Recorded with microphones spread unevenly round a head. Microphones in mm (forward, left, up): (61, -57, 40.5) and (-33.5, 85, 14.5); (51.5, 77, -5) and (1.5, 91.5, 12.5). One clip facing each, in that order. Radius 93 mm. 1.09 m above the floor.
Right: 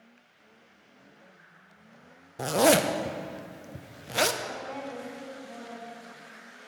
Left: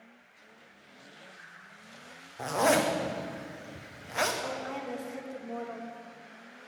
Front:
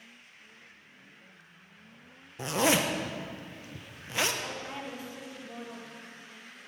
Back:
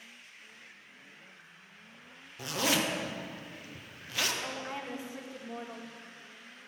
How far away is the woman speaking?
About 1.2 m.